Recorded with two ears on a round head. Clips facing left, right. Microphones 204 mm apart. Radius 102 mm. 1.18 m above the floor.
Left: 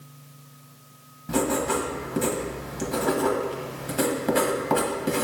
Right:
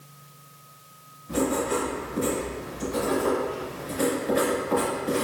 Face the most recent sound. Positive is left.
turn(degrees=80)